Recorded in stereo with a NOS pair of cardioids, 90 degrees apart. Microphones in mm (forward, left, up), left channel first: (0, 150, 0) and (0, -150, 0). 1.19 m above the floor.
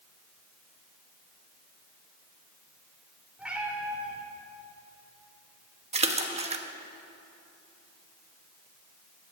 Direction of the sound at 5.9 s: 20° right.